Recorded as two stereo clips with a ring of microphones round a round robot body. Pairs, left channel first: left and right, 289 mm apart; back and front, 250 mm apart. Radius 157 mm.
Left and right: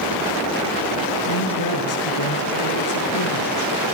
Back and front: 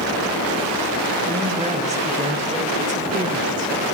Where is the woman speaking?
65° left, 5.5 m; by 3.7 s 60° left, 4 m.